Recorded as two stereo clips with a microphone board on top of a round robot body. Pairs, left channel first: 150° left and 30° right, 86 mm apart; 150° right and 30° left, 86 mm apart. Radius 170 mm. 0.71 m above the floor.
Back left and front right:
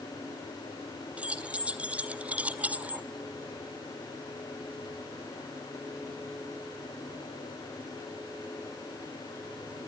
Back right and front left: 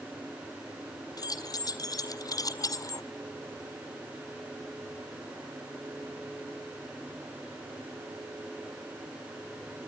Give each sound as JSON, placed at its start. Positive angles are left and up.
{"t": 1.2, "sound": "keys jangling", "azimuth_deg": -105, "distance_m": 1.7}